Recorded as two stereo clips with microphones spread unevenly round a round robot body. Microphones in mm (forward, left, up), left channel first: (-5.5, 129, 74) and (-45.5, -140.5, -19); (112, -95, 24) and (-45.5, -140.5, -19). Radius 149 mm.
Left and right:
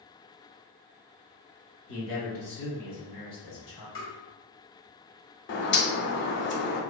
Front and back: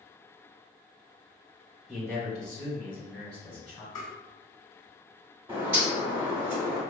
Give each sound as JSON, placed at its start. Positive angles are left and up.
{"t": 1.9, "sound": "a man speaking", "azimuth_deg": 120, "distance_m": 1.0}
{"t": 4.0, "sound": "tapping", "azimuth_deg": 65, "distance_m": 1.7}
{"t": 5.5, "sound": "a bird", "azimuth_deg": 140, "distance_m": 0.6}